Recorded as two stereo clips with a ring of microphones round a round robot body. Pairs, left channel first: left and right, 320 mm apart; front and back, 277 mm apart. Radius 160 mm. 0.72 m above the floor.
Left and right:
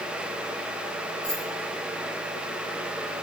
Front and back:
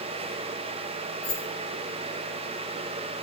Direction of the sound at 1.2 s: Straight ahead.